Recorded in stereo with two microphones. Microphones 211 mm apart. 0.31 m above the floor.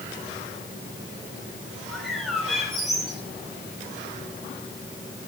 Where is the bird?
Centre (ahead or behind), 5.5 m.